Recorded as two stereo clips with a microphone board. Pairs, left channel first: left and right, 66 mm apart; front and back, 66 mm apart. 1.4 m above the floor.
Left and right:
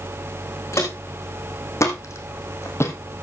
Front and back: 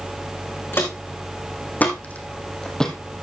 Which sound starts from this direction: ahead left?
Footsteps, at 0.7 s.